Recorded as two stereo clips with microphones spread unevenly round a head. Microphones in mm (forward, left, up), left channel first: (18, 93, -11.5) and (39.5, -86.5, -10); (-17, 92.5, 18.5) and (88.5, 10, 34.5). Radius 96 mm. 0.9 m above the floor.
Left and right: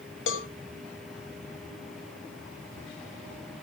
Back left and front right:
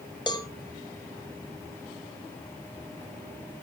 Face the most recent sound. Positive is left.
turn(degrees=85)